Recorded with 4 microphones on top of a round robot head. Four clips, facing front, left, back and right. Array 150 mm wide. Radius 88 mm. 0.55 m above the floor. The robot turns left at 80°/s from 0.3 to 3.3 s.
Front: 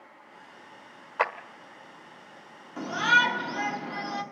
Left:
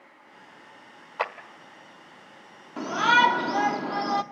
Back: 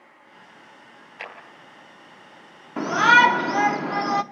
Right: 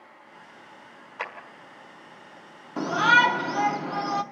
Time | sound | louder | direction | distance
1.2 | a clap | left 6 dB, front 12 dB | 25° left | 1.6 m
2.8 | a shout | right 1 dB, back 8 dB | 155° right | 1.0 m